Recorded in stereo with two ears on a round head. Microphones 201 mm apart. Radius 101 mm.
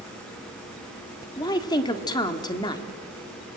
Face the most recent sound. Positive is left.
turn(degrees=20)  # may be behind; listen again after turning